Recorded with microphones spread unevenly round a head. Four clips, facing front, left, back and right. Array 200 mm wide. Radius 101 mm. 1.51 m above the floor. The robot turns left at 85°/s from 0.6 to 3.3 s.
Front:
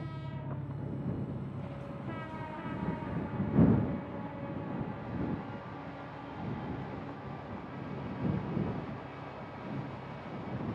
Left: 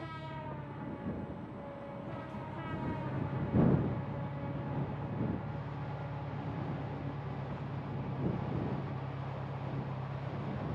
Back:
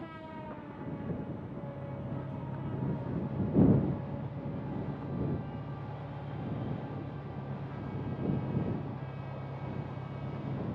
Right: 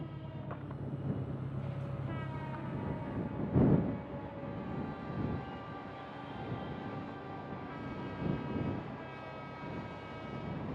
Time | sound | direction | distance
0.0 | an engine running | straight ahead | ?